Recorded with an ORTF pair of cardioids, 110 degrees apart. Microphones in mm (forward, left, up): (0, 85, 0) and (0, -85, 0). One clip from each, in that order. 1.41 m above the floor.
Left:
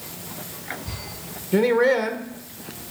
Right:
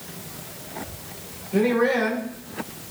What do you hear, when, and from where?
1.5 s a man speaking: 60° left, 1.5 m